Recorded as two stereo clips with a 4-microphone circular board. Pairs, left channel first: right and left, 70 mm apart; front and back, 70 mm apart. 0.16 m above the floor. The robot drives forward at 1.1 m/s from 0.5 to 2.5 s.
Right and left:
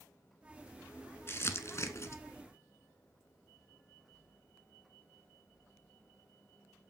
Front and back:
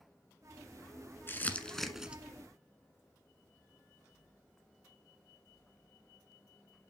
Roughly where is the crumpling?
Ahead right.